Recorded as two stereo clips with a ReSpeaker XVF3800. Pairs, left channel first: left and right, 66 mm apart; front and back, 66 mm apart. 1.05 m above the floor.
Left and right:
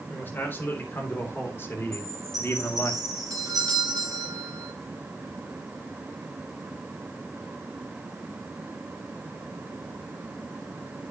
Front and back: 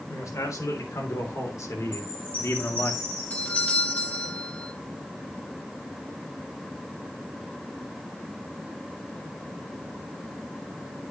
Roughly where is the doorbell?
Right.